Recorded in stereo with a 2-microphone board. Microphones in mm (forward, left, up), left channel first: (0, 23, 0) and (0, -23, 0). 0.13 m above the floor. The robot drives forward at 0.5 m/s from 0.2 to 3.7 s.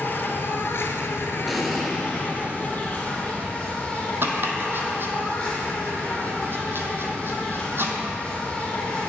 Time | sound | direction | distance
0.0 | an insect | 50° left (ahead or behind) | 0.7 m
1.5 | an explosion | centre (ahead or behind) | 0.7 m
4.2 | chopping | 55° right (ahead or behind) | 0.7 m